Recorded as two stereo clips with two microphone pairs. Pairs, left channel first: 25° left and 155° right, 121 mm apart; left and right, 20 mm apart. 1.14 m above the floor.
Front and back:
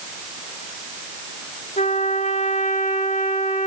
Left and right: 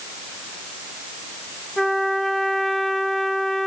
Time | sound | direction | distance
1.8 | a trumpet | 10° left | 2.5 m